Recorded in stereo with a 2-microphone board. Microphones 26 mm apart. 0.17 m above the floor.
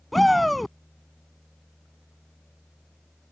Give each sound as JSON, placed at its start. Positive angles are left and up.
{"t": 0.1, "sound": "a shout", "side_deg": 5}